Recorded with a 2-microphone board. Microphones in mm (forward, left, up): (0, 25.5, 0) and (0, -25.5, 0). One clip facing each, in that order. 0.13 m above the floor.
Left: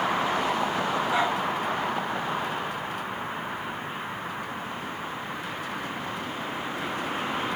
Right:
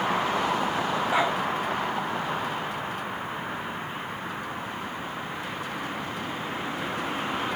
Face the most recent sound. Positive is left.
turn(degrees=-25)  # may be behind; listen again after turning